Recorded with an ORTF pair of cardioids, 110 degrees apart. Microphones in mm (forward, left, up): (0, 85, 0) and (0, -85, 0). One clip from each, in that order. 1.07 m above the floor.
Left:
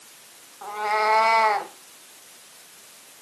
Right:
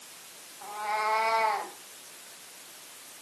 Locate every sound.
0.6 s a cat meowing: 45° left, 2.5 m